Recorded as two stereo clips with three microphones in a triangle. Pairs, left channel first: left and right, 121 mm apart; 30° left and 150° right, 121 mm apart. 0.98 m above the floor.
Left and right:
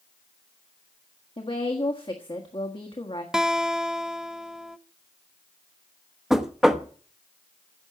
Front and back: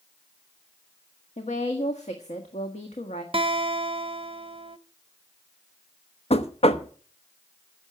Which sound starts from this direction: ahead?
Knocking, at 6.3 s.